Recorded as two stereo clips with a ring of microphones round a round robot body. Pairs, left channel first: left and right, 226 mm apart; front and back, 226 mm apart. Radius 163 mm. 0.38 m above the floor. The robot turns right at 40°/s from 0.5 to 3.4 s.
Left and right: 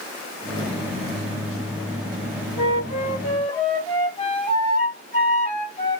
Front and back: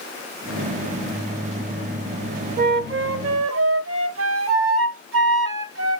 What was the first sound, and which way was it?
A flute, 130° left.